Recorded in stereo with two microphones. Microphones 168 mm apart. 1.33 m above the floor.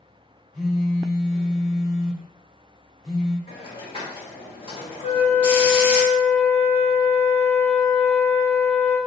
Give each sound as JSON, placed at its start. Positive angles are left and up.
{"t": 0.5, "sound": "a phone buzzing", "side_deg": 0, "distance_m": 1.0}
{"t": 3.5, "sound": "a hiss", "side_deg": 40, "distance_m": 1.4}
{"t": 5.0, "sound": "a flute", "side_deg": 40, "distance_m": 1.0}